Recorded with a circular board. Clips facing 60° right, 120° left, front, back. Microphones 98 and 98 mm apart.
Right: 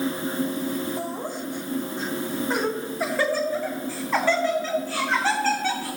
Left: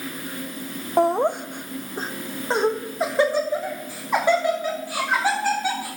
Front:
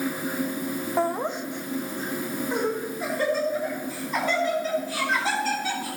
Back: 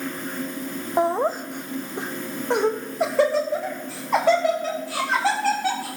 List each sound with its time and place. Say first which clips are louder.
1.0 s laughter: left 11 dB, back 6 dB; 110° left, 0.6 m; by 5.9 s 160° right, 3.5 m